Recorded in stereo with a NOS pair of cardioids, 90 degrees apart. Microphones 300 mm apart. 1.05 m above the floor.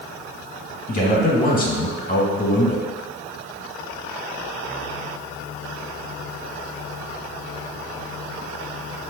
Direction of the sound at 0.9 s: 30° left.